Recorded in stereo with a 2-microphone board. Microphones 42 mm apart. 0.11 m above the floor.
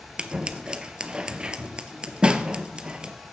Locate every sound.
0.2 s scissors: 20° right (ahead or behind), 0.6 m